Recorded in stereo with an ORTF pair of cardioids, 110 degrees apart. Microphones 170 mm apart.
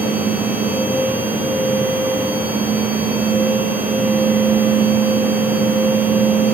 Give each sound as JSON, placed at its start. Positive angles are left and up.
{"t": 0.0, "sound": "a machine running", "azimuth_deg": -10, "distance_m": 0.7}